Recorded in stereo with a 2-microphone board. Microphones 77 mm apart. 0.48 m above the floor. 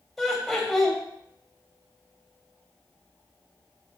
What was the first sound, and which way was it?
Laughter, centre (ahead or behind).